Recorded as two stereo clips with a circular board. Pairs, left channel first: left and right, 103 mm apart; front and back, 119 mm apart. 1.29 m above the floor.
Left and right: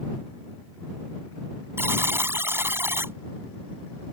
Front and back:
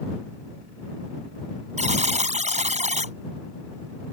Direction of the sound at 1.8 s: 160° right.